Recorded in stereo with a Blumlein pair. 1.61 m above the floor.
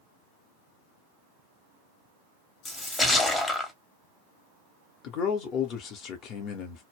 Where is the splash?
10° left, 0.8 m.